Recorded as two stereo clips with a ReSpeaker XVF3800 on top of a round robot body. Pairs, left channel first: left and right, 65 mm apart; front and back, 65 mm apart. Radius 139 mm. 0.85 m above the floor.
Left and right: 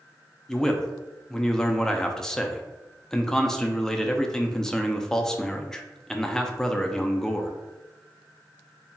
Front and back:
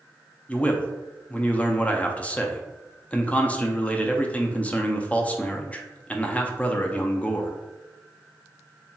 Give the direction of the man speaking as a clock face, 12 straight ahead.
11 o'clock.